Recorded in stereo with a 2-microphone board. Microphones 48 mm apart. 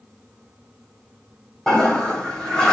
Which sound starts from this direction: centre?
A toilet flushing, at 1.7 s.